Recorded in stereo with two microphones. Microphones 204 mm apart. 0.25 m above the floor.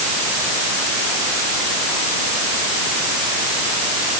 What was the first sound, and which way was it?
Only background noise.